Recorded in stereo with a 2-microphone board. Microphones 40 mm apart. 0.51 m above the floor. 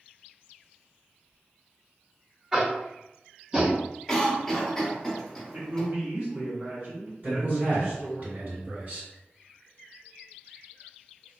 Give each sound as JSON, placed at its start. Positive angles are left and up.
{"t": 2.5, "sound": "tapping", "side_deg": -15, "distance_m": 1.0}
{"t": 4.1, "sound": "a cough", "side_deg": 10, "distance_m": 1.1}
{"t": 5.5, "sound": "a man speaking", "side_deg": -50, "distance_m": 1.3}
{"t": 7.2, "sound": "a man speaking", "side_deg": -50, "distance_m": 2.0}